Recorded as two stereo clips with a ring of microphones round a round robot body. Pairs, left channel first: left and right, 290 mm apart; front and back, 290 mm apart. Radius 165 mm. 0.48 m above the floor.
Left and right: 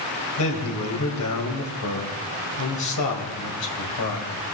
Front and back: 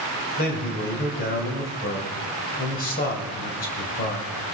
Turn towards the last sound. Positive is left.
turn(degrees=60)